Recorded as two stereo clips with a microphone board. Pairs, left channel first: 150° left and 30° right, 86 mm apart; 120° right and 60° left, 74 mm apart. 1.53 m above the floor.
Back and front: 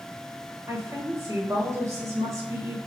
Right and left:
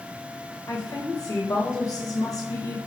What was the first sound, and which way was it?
A woman speaking, 85° right.